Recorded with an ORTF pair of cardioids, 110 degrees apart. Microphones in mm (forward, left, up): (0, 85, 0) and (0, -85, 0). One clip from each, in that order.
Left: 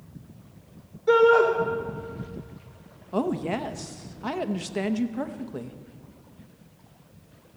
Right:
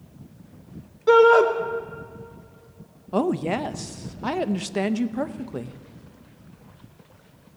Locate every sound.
1.1 s a shout: 50° right, 2 m
3.1 s a woman speaking: 20° right, 0.6 m